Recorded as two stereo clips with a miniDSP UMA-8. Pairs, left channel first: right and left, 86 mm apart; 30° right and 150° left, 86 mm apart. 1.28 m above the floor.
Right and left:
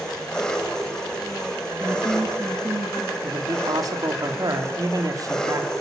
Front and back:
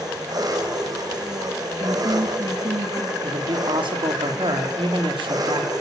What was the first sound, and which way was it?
An engine running, 175° right.